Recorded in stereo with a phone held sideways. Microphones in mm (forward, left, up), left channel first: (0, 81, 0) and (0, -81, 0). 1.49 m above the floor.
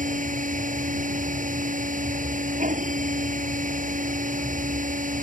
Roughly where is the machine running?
Right.